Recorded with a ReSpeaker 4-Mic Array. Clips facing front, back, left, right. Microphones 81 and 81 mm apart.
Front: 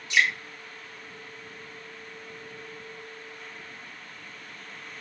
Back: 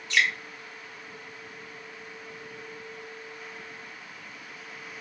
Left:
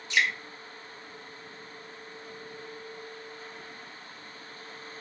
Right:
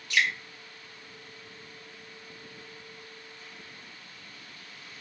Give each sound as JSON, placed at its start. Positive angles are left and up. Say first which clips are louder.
{"t": 0.1, "sound": "dripping", "louder": "front 1 dB, even", "azimuth_deg": 55, "distance_m": 1.1}